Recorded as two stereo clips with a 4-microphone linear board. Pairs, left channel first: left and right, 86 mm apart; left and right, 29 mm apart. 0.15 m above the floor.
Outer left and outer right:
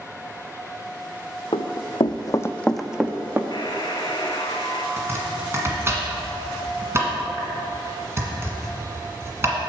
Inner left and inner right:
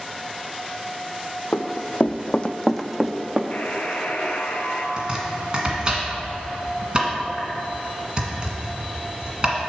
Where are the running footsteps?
85° left, 0.8 m; by 3.4 s 25° right (ahead or behind), 0.9 m.